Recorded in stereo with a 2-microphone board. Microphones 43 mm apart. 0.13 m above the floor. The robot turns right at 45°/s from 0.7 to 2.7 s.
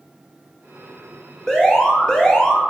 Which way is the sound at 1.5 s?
10° left (ahead or behind).